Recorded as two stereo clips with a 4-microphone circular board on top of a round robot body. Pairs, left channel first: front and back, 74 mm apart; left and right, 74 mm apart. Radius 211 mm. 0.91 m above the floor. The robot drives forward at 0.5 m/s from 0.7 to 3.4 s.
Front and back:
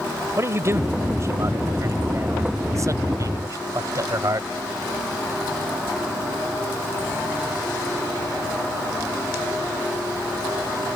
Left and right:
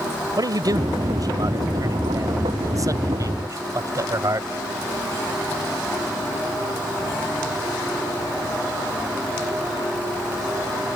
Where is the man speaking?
125° right; by 4.5 s 135° right.